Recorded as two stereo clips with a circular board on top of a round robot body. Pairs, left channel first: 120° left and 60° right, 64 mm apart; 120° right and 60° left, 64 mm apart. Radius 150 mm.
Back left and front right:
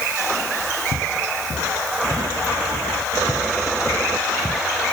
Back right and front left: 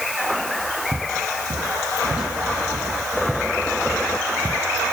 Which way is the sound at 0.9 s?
25° right.